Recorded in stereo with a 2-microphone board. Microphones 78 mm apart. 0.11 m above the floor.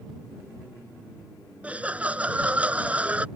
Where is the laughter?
20° right (ahead or behind).